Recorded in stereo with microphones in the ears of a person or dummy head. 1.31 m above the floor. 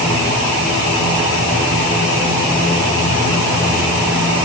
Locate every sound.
Only background noise.